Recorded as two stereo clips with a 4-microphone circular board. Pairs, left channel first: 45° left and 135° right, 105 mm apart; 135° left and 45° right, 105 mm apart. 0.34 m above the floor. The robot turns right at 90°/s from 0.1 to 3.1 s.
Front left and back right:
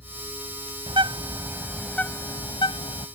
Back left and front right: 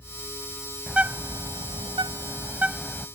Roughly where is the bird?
Behind right.